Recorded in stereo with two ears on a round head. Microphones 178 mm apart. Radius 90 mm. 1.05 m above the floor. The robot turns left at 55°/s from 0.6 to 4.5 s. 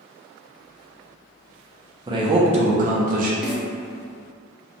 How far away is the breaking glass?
I don't hear breaking glass.